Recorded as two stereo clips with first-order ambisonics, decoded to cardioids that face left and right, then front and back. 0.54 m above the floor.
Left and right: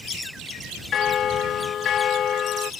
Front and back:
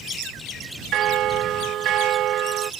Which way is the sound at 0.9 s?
140° left.